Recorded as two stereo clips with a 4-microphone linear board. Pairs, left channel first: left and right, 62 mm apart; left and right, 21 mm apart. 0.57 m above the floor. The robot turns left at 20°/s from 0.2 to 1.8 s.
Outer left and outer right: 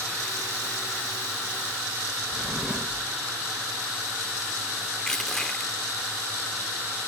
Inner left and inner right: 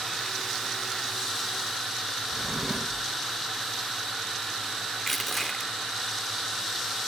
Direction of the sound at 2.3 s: 15° right (ahead or behind).